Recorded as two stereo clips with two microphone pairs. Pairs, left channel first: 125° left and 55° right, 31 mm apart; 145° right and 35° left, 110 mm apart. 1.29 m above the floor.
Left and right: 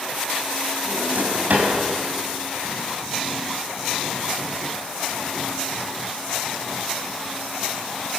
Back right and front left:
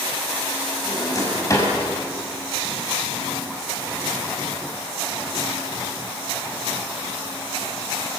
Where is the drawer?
85° right, 5.5 m.